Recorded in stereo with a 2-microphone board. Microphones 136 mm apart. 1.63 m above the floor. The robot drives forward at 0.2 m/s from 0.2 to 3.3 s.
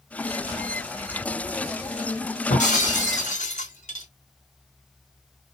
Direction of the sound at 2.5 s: 65° left (ahead or behind).